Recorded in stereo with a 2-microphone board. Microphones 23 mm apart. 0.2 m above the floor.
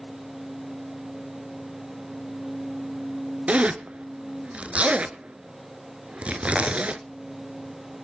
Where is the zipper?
65° right (ahead or behind), 0.9 m.